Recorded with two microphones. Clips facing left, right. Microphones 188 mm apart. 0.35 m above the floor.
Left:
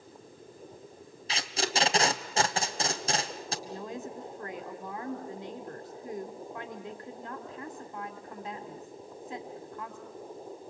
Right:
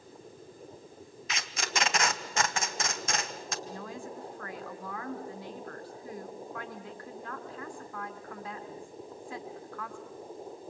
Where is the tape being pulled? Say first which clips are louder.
Left 4 dB; 30° left (ahead or behind), 1.4 m.